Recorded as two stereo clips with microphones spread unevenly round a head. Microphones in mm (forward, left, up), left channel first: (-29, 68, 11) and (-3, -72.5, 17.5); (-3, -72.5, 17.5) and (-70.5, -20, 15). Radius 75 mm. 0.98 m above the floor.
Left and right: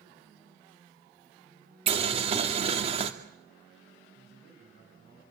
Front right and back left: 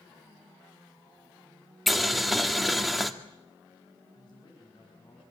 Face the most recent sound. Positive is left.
turn(degrees=-70)